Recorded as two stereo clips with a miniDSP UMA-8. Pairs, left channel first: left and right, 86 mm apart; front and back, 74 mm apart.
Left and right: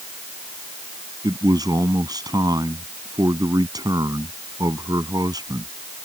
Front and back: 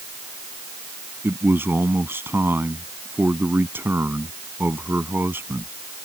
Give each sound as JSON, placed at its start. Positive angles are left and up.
{"t": 1.2, "sound": "a man speaking", "azimuth_deg": -120}